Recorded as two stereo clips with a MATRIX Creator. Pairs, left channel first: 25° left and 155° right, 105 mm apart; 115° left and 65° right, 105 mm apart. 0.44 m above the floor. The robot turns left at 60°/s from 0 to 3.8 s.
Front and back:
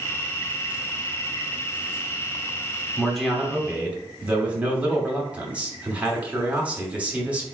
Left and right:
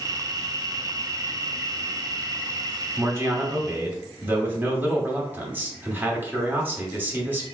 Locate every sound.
3.0 s a man speaking: 50° right, 1.0 m; by 7.4 s 100° right, 1.0 m